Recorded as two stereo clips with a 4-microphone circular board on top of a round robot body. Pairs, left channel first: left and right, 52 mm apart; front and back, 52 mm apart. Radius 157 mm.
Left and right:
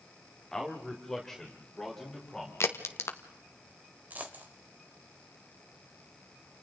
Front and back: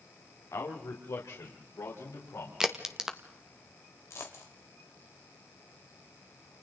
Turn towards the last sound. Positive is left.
turn(degrees=-35)